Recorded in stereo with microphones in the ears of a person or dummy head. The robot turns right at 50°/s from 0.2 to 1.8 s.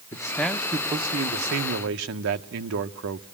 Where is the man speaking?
165° left, 1.0 m; by 3.2 s 115° right, 1.0 m.